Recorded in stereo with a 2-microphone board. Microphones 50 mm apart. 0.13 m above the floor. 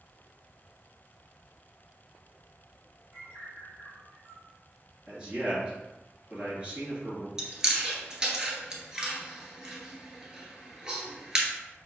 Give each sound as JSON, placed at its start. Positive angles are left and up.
{"t": 3.1, "sound": "a bird", "side_deg": -75, "distance_m": 1.2}
{"t": 5.1, "sound": "a man speaking", "side_deg": -25, "distance_m": 2.0}
{"t": 7.4, "sound": "chewing", "side_deg": -15, "distance_m": 1.0}